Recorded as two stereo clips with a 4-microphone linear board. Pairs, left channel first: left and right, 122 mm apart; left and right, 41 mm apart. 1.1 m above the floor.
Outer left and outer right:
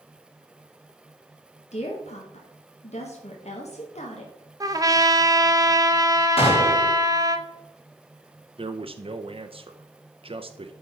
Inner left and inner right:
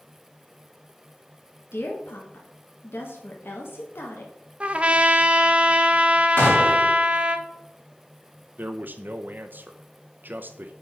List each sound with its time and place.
1.7 s a woman speaking: 65° left (ahead or behind), 1.5 m
4.6 s a trumpet: 30° right (ahead or behind), 0.7 m
6.4 s a gunshot: 55° left (ahead or behind), 2 m
8.6 s a man speaking: 50° right (ahead or behind), 0.6 m